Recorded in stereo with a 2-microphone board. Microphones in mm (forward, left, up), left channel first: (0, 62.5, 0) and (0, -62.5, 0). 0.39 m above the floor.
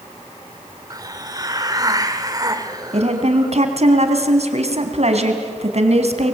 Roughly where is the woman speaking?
Right.